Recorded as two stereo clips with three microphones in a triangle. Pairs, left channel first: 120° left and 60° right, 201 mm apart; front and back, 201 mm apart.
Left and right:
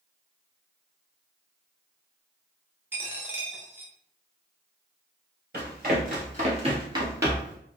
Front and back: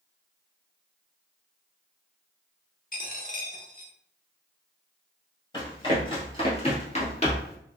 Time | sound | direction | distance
2.9 | a dropped coin | 15° left | 0.7 m
5.5 | running footsteps | 65° right | 1.5 m